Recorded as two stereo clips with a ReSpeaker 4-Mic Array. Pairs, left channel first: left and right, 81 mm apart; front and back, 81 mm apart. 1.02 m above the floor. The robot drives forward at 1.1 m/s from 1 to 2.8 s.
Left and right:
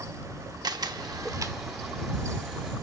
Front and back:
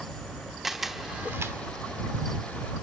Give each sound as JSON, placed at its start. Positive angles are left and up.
{"t": 0.6, "sound": "a camera shutter", "azimuth_deg": -95, "distance_m": 0.8}